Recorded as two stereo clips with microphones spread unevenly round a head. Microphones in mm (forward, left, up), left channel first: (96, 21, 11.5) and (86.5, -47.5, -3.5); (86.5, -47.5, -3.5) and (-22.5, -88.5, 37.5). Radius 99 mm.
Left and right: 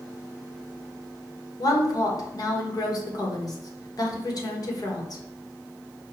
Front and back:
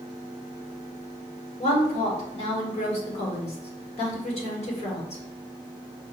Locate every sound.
1.6 s a woman speaking: 45° left, 1.2 m